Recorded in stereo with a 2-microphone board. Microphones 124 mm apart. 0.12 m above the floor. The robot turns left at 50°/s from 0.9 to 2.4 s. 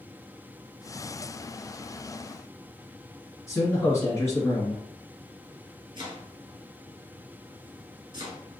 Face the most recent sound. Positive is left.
turn(degrees=-40)  # may be behind; listen again after turning